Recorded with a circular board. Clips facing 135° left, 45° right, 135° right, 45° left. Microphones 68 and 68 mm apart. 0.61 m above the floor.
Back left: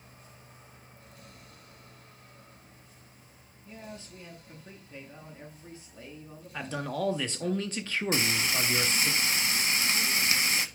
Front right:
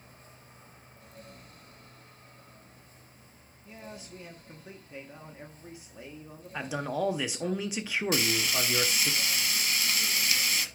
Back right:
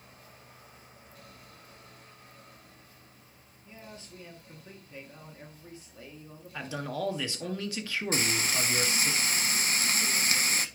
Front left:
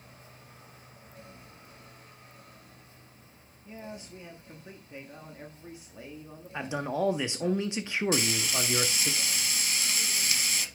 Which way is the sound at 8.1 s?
170° right.